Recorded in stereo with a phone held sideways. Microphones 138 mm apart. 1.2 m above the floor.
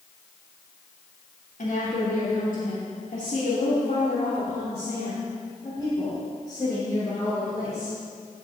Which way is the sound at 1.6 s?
75° left (ahead or behind).